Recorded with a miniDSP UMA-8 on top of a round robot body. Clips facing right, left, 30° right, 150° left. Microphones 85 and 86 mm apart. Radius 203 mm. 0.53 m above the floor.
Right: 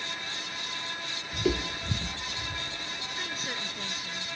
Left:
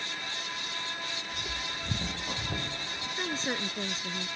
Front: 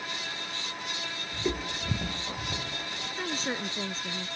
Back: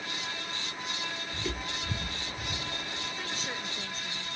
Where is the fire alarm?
No fire alarm in this recording.